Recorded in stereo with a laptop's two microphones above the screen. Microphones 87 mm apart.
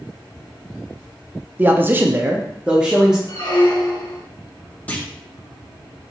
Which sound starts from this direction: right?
A man speaking, at 1.6 s.